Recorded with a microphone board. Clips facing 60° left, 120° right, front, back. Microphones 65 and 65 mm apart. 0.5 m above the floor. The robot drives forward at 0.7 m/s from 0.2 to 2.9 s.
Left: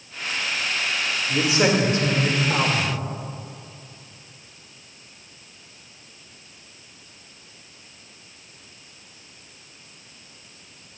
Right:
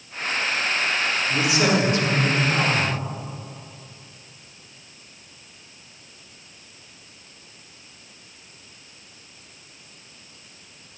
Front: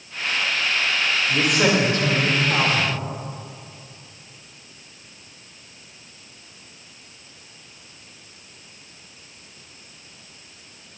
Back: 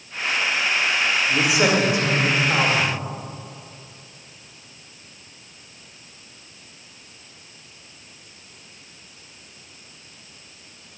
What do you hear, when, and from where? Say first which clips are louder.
1.3 s a man speaking: left 2 dB, front 1 dB; 90° left, 1.9 m; by 3.0 s 130° left, 2 m